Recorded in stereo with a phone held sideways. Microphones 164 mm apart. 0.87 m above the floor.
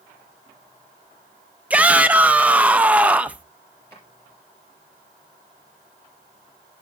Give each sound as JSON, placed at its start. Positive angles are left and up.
{"t": 1.7, "sound": "a shout", "side_deg": -10, "distance_m": 0.5}
{"t": 3.9, "sound": "a drawer", "side_deg": 15, "distance_m": 4.5}